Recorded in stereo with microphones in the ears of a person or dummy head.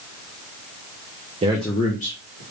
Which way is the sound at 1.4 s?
30° right (ahead or behind).